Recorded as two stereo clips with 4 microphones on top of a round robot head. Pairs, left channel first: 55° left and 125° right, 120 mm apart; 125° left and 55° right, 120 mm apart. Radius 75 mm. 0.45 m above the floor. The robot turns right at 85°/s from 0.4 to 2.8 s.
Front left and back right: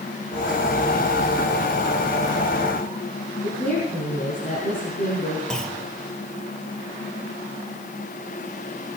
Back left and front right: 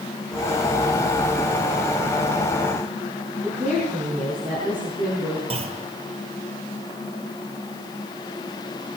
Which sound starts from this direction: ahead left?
A woman speaking, at 3.4 s.